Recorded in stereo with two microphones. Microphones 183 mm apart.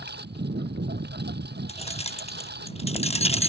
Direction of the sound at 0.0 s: 65° right (ahead or behind).